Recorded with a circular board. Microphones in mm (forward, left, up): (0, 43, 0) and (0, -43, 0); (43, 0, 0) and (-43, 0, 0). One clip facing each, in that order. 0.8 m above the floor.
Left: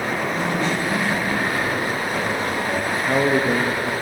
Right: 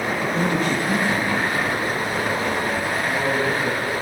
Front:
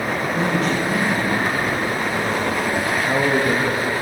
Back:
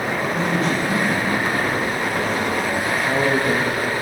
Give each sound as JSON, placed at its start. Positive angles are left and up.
{"t": 0.2, "sound": "a man speaking", "azimuth_deg": -60, "distance_m": 1.0}
{"t": 2.9, "sound": "a man speaking", "azimuth_deg": 85, "distance_m": 0.6}